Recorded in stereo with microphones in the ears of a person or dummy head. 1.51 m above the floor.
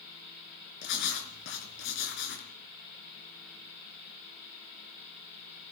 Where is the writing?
65° left (ahead or behind), 3.5 m.